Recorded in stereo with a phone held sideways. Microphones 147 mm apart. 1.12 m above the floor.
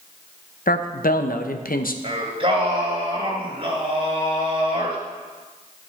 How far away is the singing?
About 2.5 m.